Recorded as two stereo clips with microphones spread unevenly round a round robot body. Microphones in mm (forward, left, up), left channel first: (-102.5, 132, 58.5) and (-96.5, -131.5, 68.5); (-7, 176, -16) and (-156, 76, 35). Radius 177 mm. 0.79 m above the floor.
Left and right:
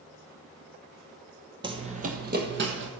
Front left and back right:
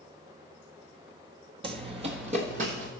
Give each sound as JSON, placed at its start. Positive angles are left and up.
{"t": 1.6, "sound": "running footsteps", "azimuth_deg": -150, "distance_m": 1.0}